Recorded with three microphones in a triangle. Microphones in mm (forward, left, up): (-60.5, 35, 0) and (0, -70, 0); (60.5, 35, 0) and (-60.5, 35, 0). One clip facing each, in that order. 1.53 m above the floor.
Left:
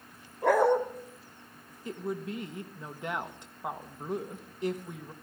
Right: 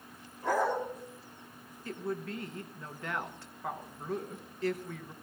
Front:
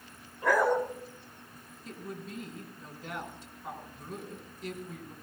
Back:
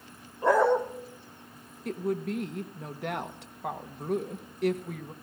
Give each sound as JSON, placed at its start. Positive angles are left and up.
{"t": 0.4, "sound": "a dog barking", "azimuth_deg": 120, "distance_m": 2.5}
{"t": 1.9, "sound": "a woman speaking", "azimuth_deg": -170, "distance_m": 1.5}